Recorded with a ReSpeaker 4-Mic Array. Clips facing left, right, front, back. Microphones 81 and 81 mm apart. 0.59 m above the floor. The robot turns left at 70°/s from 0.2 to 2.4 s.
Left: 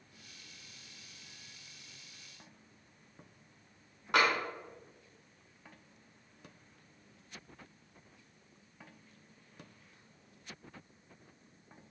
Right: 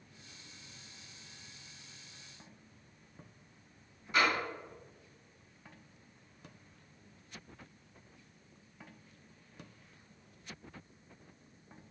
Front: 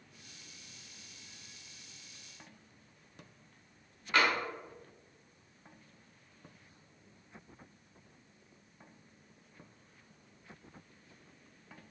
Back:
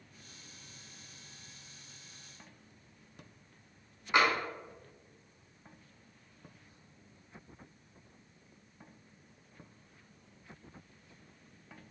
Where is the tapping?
110° left, 0.7 m.